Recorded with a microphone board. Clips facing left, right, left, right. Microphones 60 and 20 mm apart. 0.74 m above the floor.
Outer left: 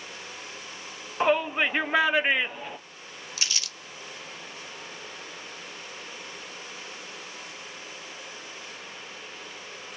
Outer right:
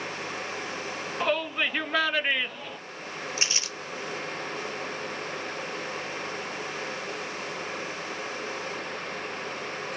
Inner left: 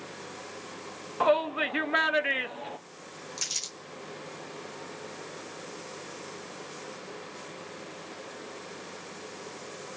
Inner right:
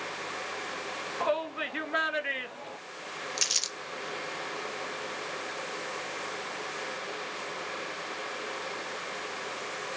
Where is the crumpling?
30° right (ahead or behind), 0.8 m.